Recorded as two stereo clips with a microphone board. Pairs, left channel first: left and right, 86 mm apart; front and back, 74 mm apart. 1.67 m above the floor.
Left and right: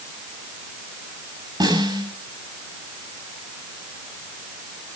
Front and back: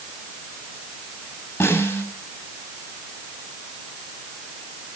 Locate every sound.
1.6 s a snare drum: 65° right, 7 m